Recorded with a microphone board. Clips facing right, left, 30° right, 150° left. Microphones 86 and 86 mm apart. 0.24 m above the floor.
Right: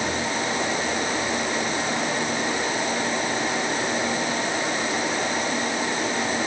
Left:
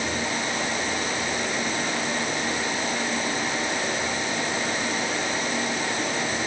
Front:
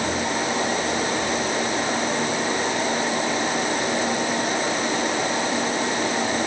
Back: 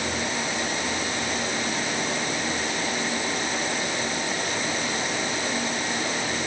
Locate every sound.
Only background noise.